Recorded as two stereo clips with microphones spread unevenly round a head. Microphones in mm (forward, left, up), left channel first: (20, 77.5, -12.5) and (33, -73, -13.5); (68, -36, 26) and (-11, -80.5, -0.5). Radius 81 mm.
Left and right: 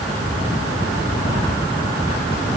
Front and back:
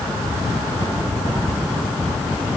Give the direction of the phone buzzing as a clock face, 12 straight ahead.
I don't hear a phone buzzing.